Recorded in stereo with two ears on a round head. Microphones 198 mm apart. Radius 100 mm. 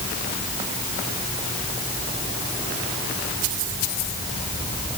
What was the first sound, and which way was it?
Only background noise.